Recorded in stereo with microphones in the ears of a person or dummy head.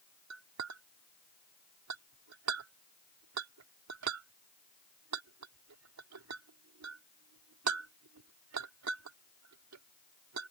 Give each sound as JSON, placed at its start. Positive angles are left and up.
{"t": 0.3, "sound": "a clink", "side_deg": -80}